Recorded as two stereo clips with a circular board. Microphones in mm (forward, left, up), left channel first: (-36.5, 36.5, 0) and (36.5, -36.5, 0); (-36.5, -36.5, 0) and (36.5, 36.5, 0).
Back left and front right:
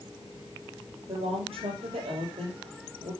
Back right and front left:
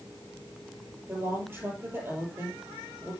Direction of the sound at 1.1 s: 20° right.